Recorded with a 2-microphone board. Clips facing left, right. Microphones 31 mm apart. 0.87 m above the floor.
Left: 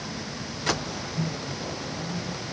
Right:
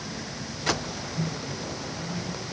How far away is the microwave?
About 6 m.